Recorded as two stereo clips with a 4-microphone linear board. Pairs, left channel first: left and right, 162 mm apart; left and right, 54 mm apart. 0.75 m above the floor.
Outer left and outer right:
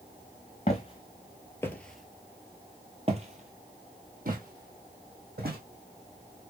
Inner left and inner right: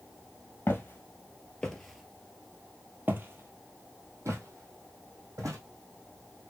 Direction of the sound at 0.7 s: 40° left (ahead or behind).